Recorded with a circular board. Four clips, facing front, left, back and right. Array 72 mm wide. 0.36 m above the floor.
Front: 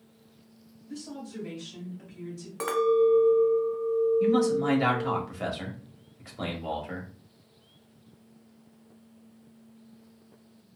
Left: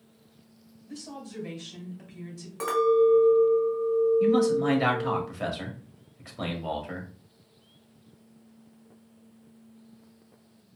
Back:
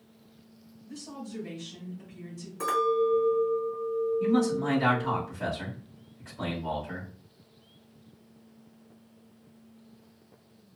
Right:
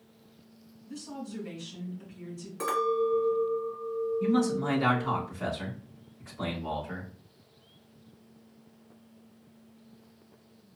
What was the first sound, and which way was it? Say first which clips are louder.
A woman speaking: right 1 dB, front 1 dB; 80° left.